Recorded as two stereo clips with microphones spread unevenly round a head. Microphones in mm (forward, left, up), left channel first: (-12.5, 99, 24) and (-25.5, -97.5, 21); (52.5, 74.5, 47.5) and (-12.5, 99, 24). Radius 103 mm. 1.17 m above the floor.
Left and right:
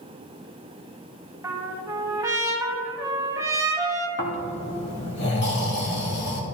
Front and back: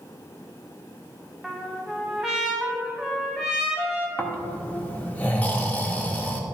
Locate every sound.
1.4 s a trumpet: 50° right, 1.0 m
4.2 s snoring: 45° left, 2 m